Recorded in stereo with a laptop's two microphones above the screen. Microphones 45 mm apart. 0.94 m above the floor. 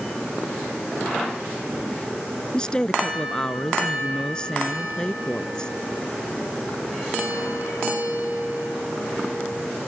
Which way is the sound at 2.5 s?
15° left (ahead or behind).